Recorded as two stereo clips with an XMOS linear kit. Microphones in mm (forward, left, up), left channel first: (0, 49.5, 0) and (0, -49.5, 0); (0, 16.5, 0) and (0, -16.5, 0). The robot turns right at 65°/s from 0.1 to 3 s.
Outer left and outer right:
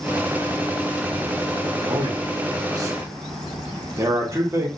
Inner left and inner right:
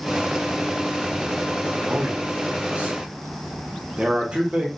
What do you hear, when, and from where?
1.8 s a man speaking: 40° right (ahead or behind), 0.7 m; by 4.7 s 30° right (ahead or behind), 0.7 m